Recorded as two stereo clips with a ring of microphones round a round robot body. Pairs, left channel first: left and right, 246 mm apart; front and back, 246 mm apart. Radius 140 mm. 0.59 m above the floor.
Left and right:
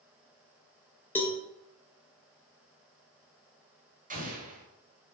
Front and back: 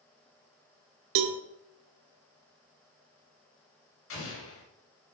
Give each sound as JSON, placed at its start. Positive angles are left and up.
{"t": 1.1, "sound": "a cowbell", "azimuth_deg": 175, "distance_m": 0.7}
{"t": 4.1, "sound": "an explosion", "azimuth_deg": -35, "distance_m": 2.5}